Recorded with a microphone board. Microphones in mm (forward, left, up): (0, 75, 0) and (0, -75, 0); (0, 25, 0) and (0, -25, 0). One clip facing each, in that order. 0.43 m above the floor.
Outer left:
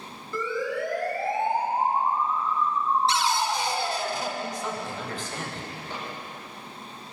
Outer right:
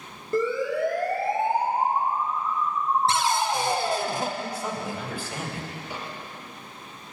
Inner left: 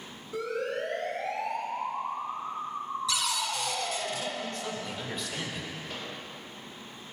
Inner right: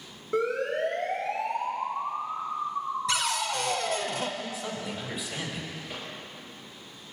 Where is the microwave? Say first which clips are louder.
Outer left 2 dB, even; 10° right (ahead or behind), 5.5 m.